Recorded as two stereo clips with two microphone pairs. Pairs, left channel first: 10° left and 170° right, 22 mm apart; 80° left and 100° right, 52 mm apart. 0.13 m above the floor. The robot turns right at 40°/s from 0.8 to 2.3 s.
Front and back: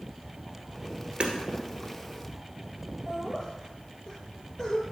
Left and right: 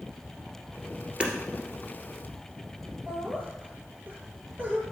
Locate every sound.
1.2 s hammering: 165° right, 1.7 m; by 1.3 s 160° right, 1.7 m
3.1 s laughter: 55° right, 2.5 m